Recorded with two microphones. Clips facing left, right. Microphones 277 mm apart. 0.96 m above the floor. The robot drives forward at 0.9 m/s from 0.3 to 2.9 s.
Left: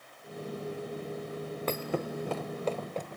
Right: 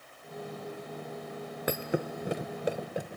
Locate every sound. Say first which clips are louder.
1.7 s a thud: right 2 dB; 15° right (ahead or behind), 0.8 m; by 3.2 s 10° right (ahead or behind), 0.9 m